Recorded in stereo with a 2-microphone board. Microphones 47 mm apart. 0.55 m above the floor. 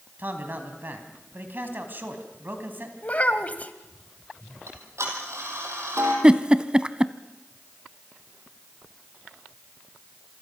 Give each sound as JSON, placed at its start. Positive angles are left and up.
{"t": 0.2, "sound": "a man speaking", "side_deg": -45, "distance_m": 3.5}
{"t": 3.0, "sound": "a child speaking", "side_deg": 35, "distance_m": 1.6}
{"t": 4.7, "sound": "ticking", "side_deg": -85, "distance_m": 5.0}
{"t": 6.2, "sound": "a giggle", "side_deg": -20, "distance_m": 0.7}